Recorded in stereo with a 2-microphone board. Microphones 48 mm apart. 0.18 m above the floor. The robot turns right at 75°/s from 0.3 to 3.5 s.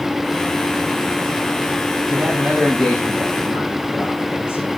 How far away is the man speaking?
About 9 m.